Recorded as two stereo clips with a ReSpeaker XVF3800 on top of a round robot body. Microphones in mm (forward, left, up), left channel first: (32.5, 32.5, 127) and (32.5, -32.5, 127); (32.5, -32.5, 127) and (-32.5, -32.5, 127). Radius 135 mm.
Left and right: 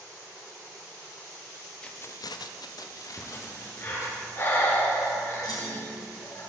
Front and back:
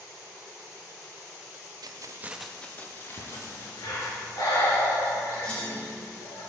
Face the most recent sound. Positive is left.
turn(degrees=75)